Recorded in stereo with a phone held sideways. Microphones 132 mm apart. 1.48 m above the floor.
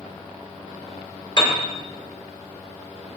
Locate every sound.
1.4 s a piano: 35° left (ahead or behind), 1.6 m